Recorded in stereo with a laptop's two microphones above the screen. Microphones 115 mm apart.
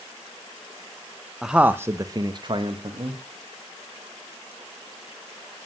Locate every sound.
1.4 s a man speaking: 5° right (ahead or behind), 0.7 m; by 3.2 s 55° right (ahead or behind), 1.4 m